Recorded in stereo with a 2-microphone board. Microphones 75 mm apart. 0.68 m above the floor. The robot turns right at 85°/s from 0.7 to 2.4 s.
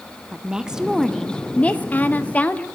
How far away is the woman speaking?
About 0.8 m.